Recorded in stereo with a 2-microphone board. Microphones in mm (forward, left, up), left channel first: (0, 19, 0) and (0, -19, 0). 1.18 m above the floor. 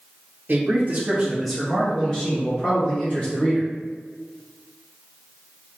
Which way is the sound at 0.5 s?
50° right (ahead or behind).